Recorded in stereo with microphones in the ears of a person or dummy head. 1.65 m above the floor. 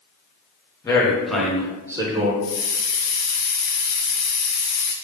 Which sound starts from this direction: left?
A hiss, at 2.4 s.